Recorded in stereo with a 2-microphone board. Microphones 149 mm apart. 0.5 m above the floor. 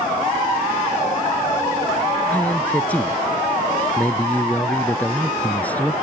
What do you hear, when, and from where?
2.3 s a man speaking: 10° left (ahead or behind)